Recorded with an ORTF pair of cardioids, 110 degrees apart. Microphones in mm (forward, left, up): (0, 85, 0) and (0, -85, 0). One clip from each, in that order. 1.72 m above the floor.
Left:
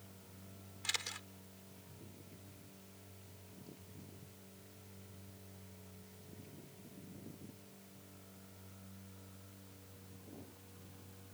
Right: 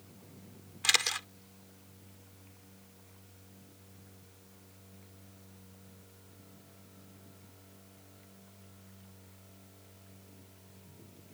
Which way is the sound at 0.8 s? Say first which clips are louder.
Right 12 dB; 65° right.